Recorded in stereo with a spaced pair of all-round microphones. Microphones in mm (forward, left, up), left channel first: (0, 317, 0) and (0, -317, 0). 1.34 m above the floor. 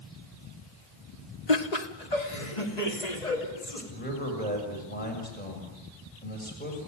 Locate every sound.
1.5 s laughter: 75° left (ahead or behind), 1.4 m; by 3.8 s 85° left, 5 m
3.9 s a man speaking: 15° left (ahead or behind), 6.5 m